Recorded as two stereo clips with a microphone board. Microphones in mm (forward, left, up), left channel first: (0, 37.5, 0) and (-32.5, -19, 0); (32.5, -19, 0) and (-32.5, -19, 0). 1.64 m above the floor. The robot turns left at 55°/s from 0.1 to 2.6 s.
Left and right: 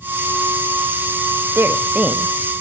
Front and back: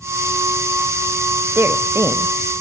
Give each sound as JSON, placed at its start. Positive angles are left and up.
{"t": 1.6, "sound": "a woman speaking", "azimuth_deg": -150, "distance_m": 0.6}